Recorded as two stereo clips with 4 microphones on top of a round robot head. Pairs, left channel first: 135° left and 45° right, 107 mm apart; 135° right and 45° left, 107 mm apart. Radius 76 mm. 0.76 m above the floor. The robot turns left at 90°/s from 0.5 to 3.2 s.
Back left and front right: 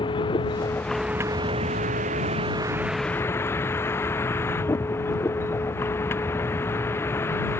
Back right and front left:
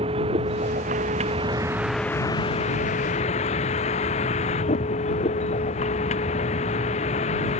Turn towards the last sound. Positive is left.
turn(degrees=-155)